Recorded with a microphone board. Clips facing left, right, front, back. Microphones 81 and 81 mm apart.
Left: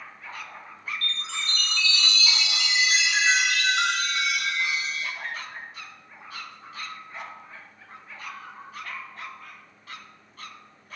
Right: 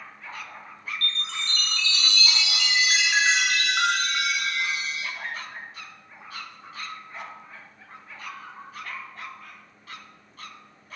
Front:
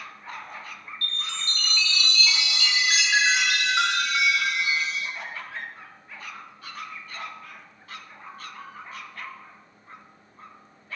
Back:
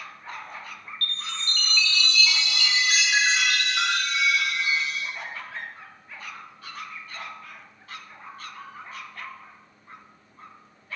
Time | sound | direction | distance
1.0 | a chime | 70° right | 0.7 m